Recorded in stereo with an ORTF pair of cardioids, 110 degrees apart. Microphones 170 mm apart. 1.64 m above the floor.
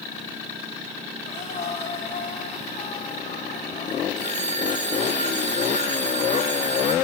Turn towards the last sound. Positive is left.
turn(degrees=-45)